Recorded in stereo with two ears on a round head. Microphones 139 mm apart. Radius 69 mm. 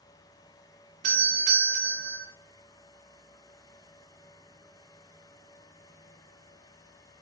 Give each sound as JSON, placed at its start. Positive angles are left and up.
{"t": 1.0, "sound": "a doorbell", "side_deg": -55, "distance_m": 0.5}